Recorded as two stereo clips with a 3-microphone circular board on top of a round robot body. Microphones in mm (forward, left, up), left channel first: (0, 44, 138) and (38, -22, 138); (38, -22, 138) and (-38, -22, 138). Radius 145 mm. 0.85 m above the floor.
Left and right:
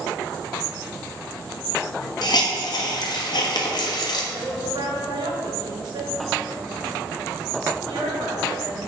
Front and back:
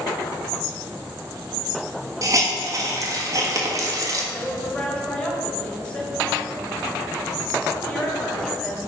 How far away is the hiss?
About 1.6 m.